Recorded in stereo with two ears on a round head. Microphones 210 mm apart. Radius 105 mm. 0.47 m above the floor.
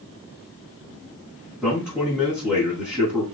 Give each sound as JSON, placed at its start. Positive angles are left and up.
{"t": 1.6, "sound": "a man speaking", "side_deg": 10, "distance_m": 4.0}